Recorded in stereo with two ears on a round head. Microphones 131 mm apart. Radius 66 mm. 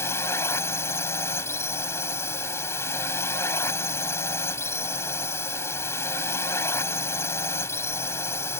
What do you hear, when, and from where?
0.0 s a drone: 20° left (ahead or behind)